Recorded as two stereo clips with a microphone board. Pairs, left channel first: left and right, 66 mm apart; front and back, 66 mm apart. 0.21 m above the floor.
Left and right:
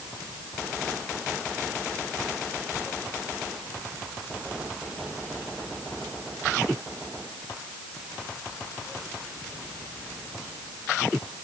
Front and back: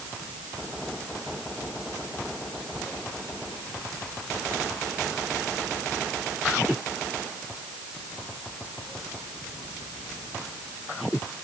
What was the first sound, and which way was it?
Only background noise.